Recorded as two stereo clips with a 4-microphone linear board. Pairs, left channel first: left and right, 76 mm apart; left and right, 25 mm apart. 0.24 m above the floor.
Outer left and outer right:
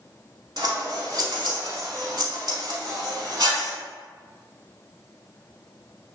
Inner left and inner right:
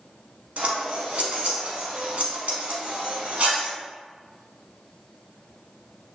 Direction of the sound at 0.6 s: 65° right (ahead or behind).